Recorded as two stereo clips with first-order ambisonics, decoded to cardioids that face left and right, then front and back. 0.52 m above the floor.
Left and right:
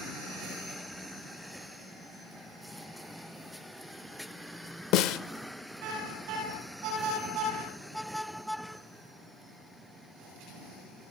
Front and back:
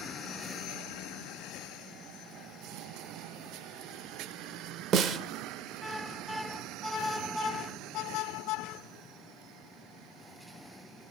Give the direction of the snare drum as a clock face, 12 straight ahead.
8 o'clock.